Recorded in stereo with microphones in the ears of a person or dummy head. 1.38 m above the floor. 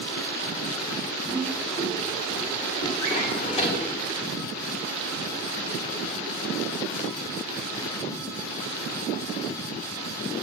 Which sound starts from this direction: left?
A drawer, at 3.0 s.